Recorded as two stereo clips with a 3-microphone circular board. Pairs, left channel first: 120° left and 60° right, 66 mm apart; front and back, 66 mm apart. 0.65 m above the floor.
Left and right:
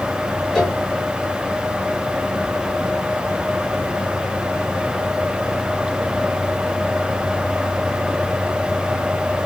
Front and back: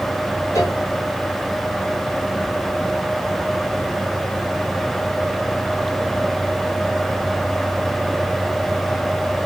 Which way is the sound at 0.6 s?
40° left.